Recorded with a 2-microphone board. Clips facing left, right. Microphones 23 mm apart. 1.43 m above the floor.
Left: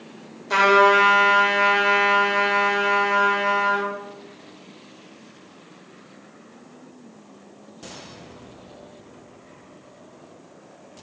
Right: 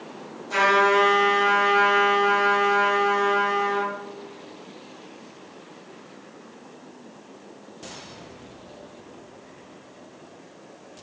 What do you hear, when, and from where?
0.5 s a trumpet: 45° left (ahead or behind), 1.1 m